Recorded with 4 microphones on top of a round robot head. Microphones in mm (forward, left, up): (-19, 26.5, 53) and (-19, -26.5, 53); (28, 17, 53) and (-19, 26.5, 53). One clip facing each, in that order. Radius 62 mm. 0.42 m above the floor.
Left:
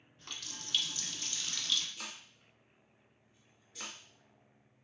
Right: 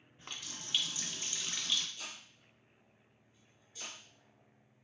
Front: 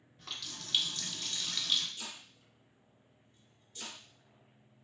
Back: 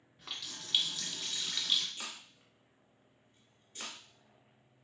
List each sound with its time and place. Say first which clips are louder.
0.2 s a running tap: even, even; 120° right, 0.6 m
2.0 s chopping: left 1 dB, back 1 dB; 115° left, 0.9 m